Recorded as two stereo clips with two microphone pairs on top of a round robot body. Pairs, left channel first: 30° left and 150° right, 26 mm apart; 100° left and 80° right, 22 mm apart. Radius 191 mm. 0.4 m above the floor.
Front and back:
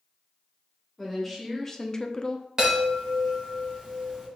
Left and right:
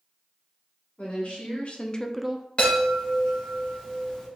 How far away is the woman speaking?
About 1.8 m.